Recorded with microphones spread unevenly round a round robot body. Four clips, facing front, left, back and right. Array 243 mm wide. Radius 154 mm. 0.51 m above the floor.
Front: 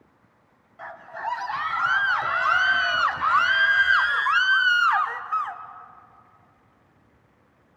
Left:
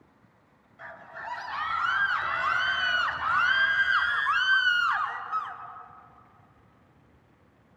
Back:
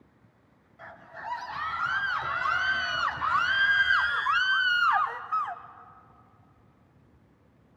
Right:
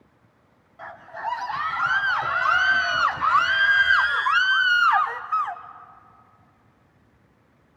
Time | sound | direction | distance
0.8 | a scream | 25° right | 4 m